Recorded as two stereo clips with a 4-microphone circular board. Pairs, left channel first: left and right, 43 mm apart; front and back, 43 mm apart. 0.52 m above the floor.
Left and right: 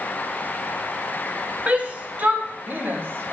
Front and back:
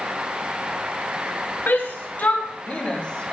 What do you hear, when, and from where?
1.7 s a shout: 35° right, 2.5 m; by 3.3 s 70° right, 2 m